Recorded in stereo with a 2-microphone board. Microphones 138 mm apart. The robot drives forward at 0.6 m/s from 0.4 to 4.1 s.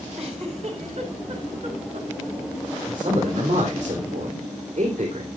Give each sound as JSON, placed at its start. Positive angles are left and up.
{"t": 0.2, "sound": "a giggle", "side_deg": -50, "distance_m": 4.5}
{"t": 2.9, "sound": "a man speaking", "side_deg": -50, "distance_m": 3.0}